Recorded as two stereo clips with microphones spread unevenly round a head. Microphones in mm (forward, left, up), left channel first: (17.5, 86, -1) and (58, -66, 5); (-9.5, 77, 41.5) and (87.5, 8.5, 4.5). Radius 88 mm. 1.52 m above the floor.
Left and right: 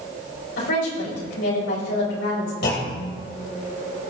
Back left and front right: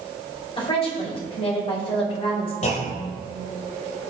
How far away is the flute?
I don't hear a flute.